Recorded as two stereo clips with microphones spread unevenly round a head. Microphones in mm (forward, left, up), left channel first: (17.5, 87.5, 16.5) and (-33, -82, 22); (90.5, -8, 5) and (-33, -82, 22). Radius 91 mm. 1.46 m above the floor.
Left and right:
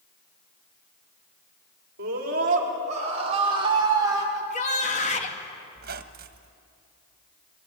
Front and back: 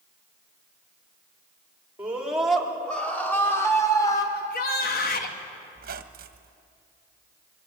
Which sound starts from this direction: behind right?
A squeak, at 5.8 s.